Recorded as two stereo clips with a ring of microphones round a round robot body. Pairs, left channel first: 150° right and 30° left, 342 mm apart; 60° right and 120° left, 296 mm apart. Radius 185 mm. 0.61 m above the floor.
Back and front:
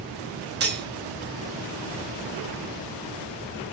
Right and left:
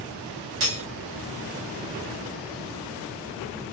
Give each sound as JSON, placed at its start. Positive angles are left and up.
{"t": 0.6, "sound": "cutlery clinking", "azimuth_deg": 90, "distance_m": 0.8}